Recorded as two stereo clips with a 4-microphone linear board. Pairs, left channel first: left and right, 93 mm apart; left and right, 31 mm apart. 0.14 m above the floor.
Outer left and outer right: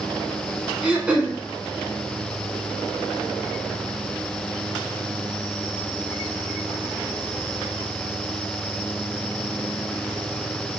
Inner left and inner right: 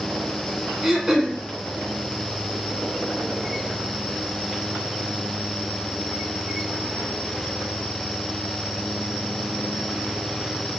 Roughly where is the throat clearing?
Centre.